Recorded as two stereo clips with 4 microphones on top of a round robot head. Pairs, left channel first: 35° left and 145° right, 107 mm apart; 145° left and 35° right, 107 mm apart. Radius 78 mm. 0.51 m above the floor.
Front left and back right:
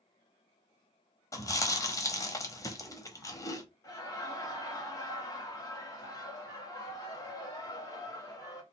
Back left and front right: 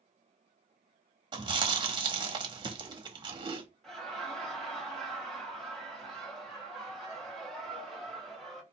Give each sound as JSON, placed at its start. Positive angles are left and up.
{"t": 1.3, "sound": "chewing", "azimuth_deg": -15, "distance_m": 1.2}
{"t": 3.8, "sound": "laughter", "azimuth_deg": 65, "distance_m": 1.5}